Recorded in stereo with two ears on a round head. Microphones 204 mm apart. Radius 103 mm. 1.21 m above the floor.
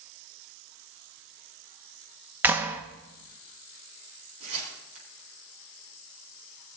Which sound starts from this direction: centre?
A clap, at 2.4 s.